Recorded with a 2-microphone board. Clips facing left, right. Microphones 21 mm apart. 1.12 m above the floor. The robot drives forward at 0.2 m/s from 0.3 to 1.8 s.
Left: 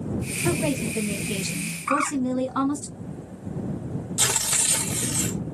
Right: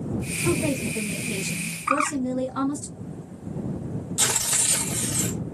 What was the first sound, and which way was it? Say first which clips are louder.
A woman speaking: even; 45° left (ahead or behind).